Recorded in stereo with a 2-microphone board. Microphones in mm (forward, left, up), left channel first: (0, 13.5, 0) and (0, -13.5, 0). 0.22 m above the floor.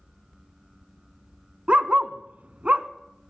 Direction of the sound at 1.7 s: 45° right (ahead or behind).